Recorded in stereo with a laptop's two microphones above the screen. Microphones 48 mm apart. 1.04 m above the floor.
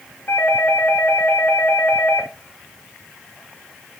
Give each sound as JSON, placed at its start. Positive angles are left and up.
{"t": 0.3, "sound": "a doorbell", "side_deg": 60, "distance_m": 2.5}